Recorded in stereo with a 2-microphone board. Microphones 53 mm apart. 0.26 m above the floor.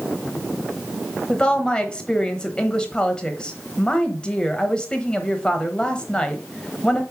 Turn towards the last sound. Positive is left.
turn(degrees=15)  # may be behind; listen again after turning